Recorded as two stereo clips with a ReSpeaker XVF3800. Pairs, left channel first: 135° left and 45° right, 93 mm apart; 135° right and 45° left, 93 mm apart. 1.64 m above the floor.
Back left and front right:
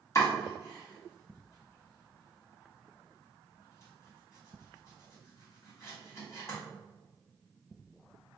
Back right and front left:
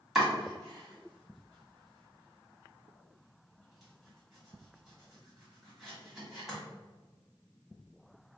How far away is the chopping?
About 1.7 m.